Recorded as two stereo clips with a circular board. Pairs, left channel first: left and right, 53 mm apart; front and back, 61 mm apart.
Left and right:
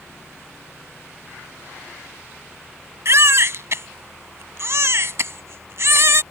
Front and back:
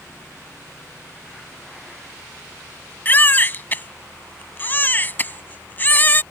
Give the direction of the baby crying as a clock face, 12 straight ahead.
2 o'clock.